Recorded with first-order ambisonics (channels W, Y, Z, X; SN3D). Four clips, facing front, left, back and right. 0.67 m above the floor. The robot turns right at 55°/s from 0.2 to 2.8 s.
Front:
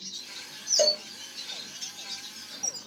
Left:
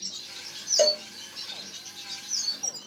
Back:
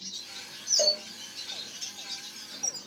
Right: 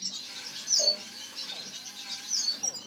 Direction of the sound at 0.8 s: 70° left.